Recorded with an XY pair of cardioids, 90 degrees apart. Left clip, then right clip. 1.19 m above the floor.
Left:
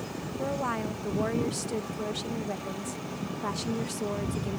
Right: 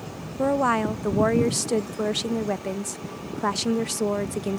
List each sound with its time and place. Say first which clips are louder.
0.4 s a woman speaking: right 10 dB; 70° right